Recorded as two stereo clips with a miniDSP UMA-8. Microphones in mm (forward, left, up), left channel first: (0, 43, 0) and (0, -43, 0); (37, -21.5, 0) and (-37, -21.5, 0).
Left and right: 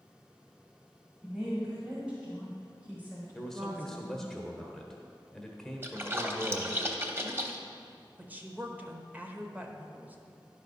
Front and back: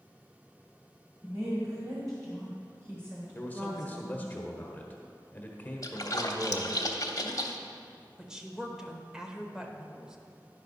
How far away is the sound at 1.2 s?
About 2 m.